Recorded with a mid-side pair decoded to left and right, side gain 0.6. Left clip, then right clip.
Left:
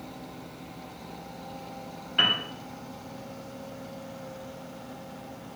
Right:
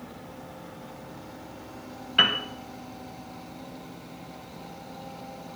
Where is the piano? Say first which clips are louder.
Right 2 dB; 30° right, 1.9 m.